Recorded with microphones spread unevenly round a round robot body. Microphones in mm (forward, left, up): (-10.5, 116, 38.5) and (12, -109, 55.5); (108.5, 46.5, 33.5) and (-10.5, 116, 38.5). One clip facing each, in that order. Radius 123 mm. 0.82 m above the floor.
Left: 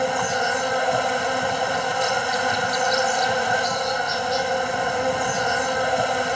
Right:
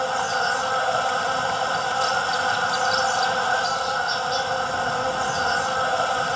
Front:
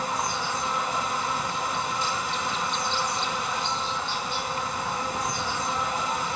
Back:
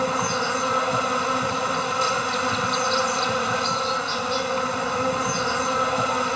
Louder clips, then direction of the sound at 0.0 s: Left 3 dB, back 5 dB; 170° left.